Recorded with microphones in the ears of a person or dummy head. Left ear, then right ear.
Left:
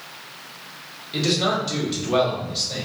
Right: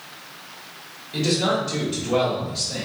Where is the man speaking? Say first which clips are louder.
Even; 20° left (ahead or behind), 1.4 m.